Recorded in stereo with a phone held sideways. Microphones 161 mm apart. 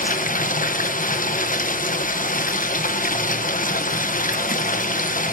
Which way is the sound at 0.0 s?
55° left (ahead or behind).